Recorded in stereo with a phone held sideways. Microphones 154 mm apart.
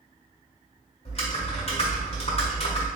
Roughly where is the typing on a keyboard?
Left.